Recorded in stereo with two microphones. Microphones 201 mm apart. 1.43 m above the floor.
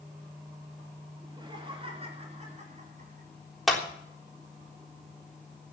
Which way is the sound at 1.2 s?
20° right (ahead or behind).